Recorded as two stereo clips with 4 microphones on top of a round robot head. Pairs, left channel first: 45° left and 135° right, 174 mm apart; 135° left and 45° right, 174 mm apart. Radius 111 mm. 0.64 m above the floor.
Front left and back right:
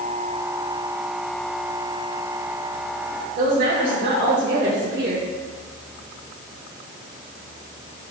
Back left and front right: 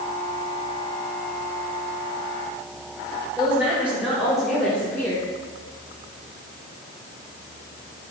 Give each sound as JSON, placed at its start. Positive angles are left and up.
{"t": 3.4, "sound": "a woman speaking", "azimuth_deg": -125, "distance_m": 3.5}